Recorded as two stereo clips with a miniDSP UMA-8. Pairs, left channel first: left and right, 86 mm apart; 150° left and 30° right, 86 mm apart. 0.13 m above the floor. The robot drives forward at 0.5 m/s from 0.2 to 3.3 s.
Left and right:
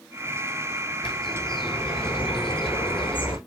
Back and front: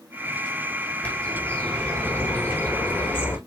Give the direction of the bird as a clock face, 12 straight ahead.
9 o'clock.